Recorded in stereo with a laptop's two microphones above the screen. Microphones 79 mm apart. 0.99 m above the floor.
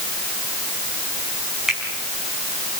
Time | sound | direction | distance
1.7 | a finger snap | 10° right (ahead or behind) | 6 m